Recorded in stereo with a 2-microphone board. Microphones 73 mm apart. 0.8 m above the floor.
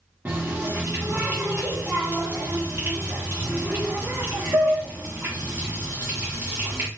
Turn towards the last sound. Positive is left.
turn(degrees=-25)  # may be behind; listen again after turning